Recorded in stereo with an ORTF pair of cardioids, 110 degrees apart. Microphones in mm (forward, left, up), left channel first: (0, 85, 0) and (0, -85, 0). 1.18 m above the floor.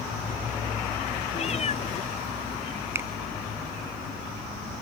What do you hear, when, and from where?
1.4 s a cat meowing: 40° left
3.0 s a finger snap: 15° right